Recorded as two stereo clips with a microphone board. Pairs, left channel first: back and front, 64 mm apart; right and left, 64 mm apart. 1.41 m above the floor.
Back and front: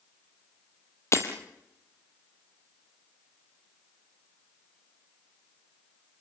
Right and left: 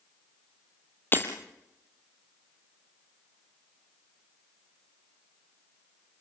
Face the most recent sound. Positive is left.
turn(degrees=-145)